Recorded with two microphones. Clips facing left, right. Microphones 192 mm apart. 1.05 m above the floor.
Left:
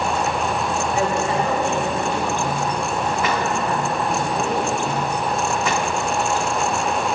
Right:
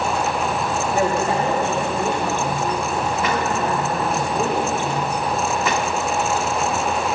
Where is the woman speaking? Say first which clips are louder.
Right 2 dB; 50° right (ahead or behind), 3 m; by 4.7 s 80° right, 3.5 m.